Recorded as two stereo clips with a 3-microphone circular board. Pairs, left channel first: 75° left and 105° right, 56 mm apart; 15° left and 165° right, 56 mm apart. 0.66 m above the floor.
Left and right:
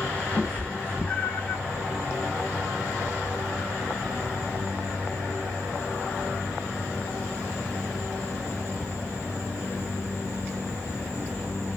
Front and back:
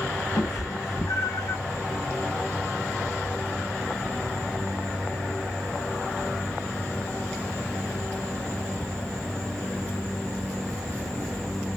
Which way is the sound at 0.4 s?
15° left.